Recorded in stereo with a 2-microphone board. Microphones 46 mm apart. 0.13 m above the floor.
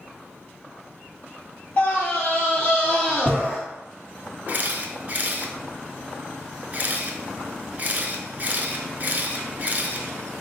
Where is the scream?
35° left (ahead or behind), 1.7 m.